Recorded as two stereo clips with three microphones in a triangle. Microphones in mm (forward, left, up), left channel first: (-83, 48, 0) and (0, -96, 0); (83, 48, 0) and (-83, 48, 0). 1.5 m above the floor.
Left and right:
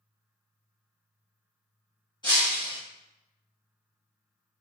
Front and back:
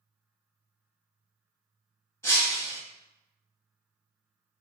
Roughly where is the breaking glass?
Left.